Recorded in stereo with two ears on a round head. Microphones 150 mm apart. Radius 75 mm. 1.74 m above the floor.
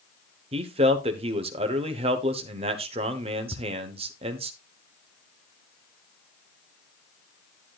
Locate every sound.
0.5 s a man speaking: 35° right (ahead or behind), 1.0 m
3.5 s ticking: 10° right (ahead or behind), 1.1 m